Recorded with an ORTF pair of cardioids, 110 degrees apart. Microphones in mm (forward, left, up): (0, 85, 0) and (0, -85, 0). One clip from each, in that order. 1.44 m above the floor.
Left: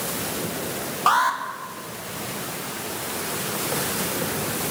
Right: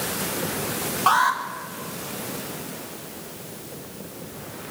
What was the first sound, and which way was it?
An alarm, 5° left.